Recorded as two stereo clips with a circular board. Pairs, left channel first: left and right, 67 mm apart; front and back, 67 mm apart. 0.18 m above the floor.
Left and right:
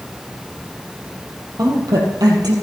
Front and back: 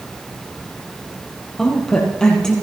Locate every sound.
1.6 s a woman speaking: 80° right, 5 m